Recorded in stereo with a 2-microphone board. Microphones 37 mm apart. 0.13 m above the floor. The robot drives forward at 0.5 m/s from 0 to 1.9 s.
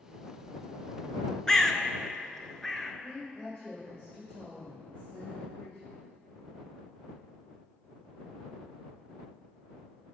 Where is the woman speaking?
35° left (ahead or behind), 2.5 m.